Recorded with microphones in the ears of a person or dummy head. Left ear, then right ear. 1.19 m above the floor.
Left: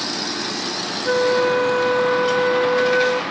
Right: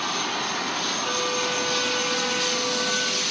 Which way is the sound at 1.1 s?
25° left (ahead or behind).